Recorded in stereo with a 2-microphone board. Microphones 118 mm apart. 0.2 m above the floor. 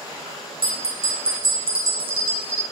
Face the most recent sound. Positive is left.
turn(degrees=-55)  # may be behind; listen again after turning